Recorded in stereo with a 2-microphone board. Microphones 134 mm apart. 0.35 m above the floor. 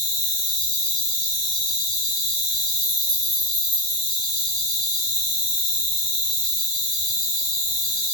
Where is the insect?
Centre (ahead or behind), 1.2 m.